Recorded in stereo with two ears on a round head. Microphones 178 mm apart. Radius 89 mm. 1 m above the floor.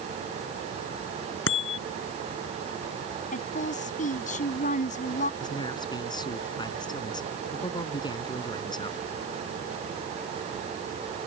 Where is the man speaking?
25° left (ahead or behind).